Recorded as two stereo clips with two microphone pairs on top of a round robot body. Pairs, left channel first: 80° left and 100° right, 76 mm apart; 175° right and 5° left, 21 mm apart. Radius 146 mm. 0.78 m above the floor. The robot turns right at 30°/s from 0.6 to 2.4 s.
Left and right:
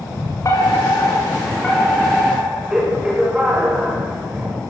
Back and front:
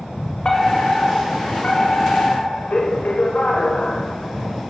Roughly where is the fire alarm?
Behind left.